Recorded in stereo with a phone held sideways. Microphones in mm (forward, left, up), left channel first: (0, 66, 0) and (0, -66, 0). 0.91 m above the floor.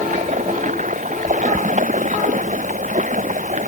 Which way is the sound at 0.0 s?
75° right (ahead or behind).